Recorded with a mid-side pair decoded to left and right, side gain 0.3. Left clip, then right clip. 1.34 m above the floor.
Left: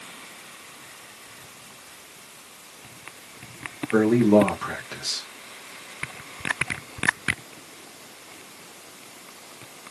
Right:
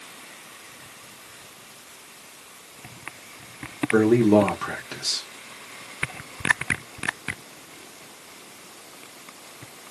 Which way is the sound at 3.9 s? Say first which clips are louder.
Even; 30° right.